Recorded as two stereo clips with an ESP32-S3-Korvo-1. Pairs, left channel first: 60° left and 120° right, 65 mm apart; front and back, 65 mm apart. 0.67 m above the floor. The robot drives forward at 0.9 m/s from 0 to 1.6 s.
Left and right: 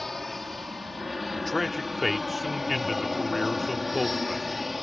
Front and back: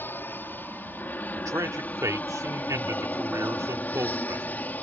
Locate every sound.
0.0 s an aircraft: 25° right; by 4.8 s 35° right
1.4 s a man speaking: 145° left; by 4.5 s 150° left